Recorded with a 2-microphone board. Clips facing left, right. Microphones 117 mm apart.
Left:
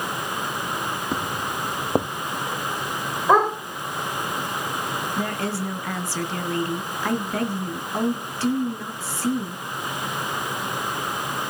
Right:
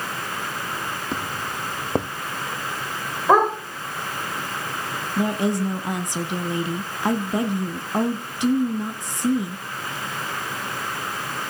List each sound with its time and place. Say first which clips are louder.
1.1 s footsteps: left 2 dB; 5° left (ahead or behind), 0.5 m
3.3 s a dog barking: right 1 dB; 10° right (ahead or behind), 5 m
5.2 s a woman speaking: right 8 dB; 15° right (ahead or behind), 1.3 m